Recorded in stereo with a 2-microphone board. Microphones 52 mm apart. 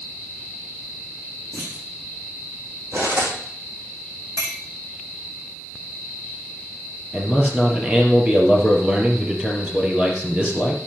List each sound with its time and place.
1.5 s a clunk: 75° right (ahead or behind), 6.5 m
2.9 s cutlery clinking: 65° right (ahead or behind), 4 m
4.4 s a clink: 70° right (ahead or behind), 3.5 m
7.1 s a man speaking: 20° right (ahead or behind), 3.5 m